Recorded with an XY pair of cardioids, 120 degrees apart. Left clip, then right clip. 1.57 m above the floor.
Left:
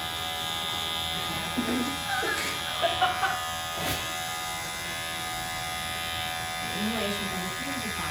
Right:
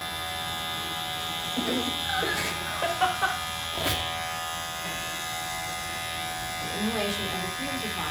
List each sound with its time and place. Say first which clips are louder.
1.6 s laughter: right 4 dB; 35° right, 7.5 m; by 3.4 s 20° right, 6 m
3.7 s a squeak: right 5 dB; 40° right, 3 m
6.6 s a woman speaking: right 2 dB; 30° right, 4 m